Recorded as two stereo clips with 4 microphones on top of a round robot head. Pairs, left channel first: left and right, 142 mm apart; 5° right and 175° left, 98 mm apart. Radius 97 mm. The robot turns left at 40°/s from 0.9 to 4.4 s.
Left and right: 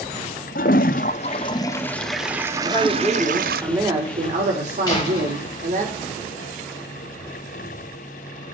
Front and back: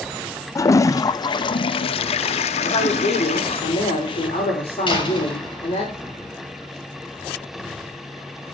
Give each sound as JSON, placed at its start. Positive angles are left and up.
{"t": 0.6, "sound": "a toilet flushing", "azimuth_deg": 50, "distance_m": 0.6}
{"t": 2.6, "sound": "a man speaking", "azimuth_deg": 25, "distance_m": 4.5}
{"t": 4.9, "sound": "a door slam", "azimuth_deg": 25, "distance_m": 6.5}